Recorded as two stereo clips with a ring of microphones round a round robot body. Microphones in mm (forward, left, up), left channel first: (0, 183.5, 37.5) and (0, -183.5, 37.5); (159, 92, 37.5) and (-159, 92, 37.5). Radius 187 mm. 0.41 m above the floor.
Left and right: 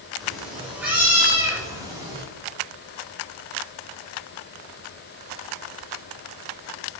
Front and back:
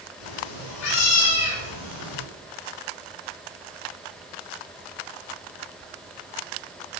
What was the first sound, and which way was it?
A cat meowing, straight ahead.